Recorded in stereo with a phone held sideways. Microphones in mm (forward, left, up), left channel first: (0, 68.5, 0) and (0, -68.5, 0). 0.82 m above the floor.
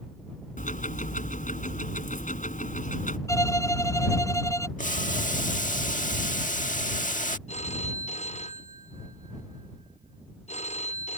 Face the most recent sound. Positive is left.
turn(degrees=55)  # may be behind; listen again after turning